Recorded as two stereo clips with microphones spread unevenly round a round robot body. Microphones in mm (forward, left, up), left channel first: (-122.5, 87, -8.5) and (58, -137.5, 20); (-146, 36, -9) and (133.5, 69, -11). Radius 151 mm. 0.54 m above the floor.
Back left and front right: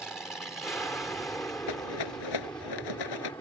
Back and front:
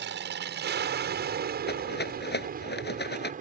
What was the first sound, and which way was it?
An aircraft, 40° left.